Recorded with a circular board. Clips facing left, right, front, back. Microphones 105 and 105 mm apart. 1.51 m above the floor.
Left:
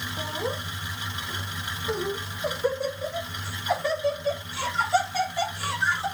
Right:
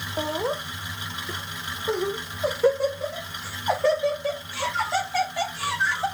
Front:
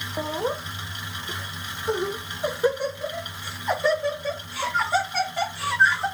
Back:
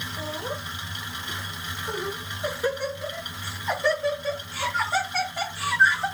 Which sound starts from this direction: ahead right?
Laughter, at 0.2 s.